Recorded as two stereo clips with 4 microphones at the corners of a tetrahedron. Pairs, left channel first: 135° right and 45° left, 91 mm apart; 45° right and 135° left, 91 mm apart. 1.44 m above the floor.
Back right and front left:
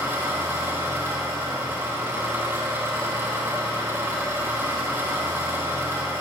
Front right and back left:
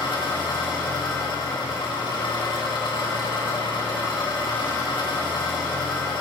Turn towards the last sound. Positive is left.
turn(degrees=-15)